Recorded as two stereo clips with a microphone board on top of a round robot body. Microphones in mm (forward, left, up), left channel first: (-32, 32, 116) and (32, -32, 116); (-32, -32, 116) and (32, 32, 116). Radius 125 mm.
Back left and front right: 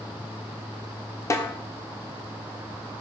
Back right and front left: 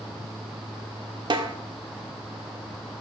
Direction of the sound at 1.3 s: 80° left.